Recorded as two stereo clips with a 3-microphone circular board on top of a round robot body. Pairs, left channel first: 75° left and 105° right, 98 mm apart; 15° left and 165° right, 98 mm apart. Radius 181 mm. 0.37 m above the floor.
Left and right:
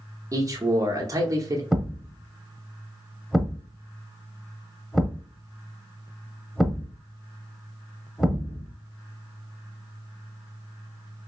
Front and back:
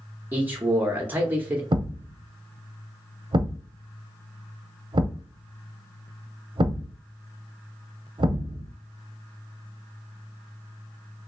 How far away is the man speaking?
About 0.9 m.